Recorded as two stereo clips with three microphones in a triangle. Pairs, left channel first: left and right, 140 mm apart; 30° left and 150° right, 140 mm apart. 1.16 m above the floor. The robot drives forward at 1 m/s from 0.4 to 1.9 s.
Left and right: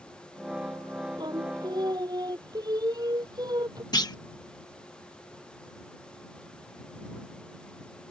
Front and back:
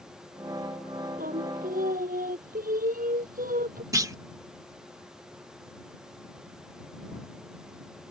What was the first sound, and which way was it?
Singing, 150° right.